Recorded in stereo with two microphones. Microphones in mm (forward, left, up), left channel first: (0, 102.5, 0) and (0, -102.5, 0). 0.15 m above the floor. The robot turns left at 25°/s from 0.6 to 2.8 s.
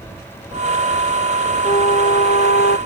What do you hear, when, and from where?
1.6 s a flute: 35° left (ahead or behind); by 2.8 s 60° left (ahead or behind)